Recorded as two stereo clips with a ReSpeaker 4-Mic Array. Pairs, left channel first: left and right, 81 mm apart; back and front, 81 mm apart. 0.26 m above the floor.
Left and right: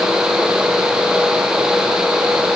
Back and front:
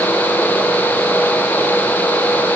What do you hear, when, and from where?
Only background noise.